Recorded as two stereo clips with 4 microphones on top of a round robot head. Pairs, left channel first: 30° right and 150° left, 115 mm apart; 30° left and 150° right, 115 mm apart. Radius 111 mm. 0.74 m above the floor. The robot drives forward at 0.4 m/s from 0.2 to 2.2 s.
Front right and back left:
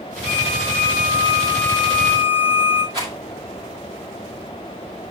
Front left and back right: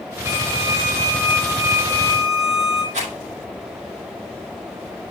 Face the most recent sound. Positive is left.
turn(degrees=-150)